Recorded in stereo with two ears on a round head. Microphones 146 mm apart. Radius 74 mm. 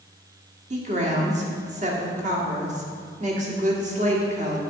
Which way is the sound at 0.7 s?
45° right (ahead or behind).